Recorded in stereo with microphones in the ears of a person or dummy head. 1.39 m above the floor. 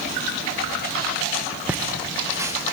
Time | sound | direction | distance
1.7 | laughter | 5° right (ahead or behind) | 1.1 m